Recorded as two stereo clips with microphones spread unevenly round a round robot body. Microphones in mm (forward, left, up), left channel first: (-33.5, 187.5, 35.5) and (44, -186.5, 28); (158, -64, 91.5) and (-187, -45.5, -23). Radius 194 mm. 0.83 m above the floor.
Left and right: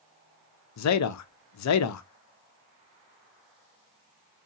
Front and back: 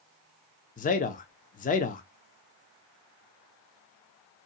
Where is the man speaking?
75° left, 0.5 m.